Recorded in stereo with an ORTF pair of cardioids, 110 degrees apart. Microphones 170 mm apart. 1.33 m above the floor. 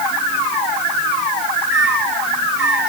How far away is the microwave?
About 9 m.